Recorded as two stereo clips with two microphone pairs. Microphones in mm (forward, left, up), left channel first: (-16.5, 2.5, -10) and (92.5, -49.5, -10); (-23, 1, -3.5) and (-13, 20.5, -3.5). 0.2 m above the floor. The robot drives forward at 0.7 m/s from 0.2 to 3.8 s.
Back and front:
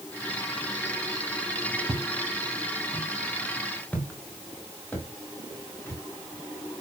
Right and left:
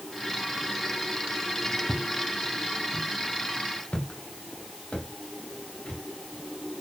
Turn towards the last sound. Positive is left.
turn(degrees=-135)